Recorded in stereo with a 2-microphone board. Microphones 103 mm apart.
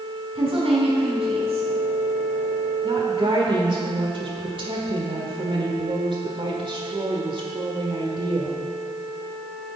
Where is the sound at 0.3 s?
70° right (ahead or behind), 4.5 m.